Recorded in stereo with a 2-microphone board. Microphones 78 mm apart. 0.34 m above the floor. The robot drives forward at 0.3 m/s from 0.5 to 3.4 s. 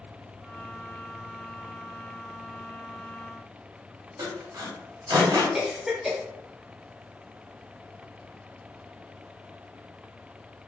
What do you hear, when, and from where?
4.2 s sawing: 50° right (ahead or behind), 0.7 m
5.5 s a cough: 5° right (ahead or behind), 1.0 m